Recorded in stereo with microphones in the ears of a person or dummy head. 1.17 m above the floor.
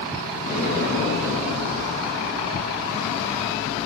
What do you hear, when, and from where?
0.4 s an explosion: 50° left (ahead or behind), 7 m